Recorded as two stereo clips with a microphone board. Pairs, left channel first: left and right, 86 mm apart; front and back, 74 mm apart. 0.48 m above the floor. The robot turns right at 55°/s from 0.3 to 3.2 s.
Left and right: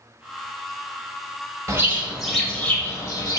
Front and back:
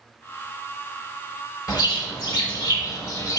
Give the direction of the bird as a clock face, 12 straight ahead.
1 o'clock.